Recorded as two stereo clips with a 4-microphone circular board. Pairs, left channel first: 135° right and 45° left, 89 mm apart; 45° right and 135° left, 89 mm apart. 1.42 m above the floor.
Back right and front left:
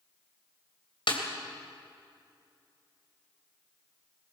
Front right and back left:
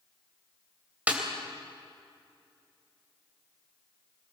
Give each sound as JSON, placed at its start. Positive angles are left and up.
{"t": 1.1, "sound": "a snare drum", "azimuth_deg": -150, "distance_m": 3.0}